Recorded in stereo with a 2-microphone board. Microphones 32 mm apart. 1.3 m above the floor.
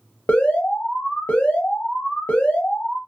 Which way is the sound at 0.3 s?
55° left (ahead or behind).